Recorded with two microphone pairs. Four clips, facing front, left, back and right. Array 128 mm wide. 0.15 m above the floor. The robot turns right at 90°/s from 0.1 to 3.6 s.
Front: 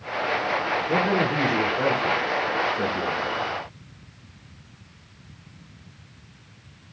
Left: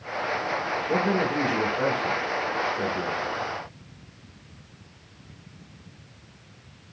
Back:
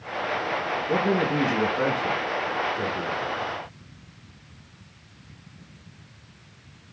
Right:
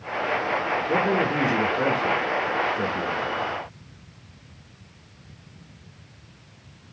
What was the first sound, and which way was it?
A man speaking, 145° left.